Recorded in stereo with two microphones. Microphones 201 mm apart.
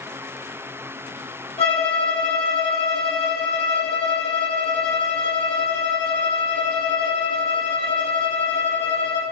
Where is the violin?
30° left (ahead or behind), 4 m.